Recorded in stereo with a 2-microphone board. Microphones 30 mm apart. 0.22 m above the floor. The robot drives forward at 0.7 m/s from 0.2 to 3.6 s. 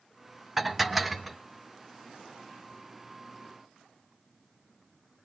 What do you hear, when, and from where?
0.6 s dishes clattering: 5° right (ahead or behind), 0.7 m; by 1.4 s centre (ahead or behind), 1.2 m